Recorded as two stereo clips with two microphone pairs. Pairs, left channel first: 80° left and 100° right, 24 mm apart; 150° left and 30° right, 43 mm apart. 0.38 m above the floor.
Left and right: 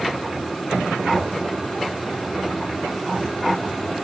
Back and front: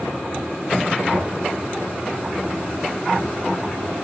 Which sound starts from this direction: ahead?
Knocking, at 1.1 s.